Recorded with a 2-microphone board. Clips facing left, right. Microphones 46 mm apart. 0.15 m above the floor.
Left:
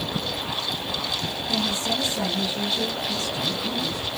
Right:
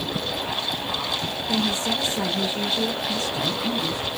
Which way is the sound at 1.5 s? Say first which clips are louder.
Right 2 dB; 30° right (ahead or behind).